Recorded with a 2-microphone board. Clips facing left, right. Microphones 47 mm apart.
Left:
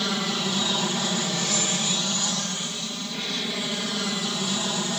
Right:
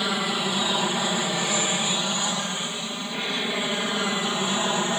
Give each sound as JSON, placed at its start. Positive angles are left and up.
{"t": 0.0, "sound": "an aircraft", "side_deg": -15}